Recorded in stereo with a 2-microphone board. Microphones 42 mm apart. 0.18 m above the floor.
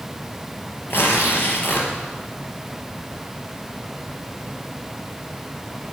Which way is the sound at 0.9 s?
60° left (ahead or behind).